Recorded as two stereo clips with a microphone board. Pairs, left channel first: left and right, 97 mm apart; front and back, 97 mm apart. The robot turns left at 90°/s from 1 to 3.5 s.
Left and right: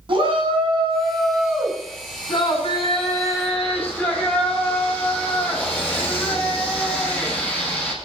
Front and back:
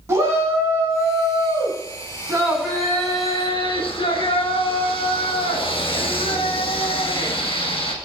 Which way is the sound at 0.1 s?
125° right.